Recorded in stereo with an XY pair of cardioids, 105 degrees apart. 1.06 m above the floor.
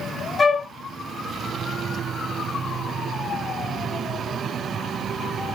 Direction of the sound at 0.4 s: 25° left.